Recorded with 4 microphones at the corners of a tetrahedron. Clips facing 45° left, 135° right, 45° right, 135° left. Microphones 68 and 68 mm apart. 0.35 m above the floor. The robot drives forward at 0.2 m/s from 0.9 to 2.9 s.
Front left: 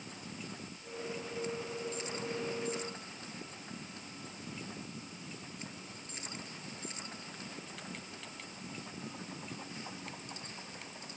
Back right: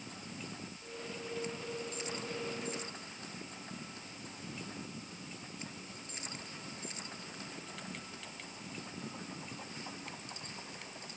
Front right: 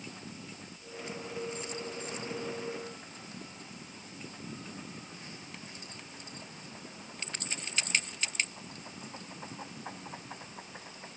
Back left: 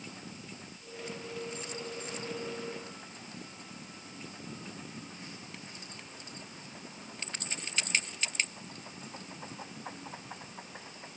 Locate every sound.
Only background noise.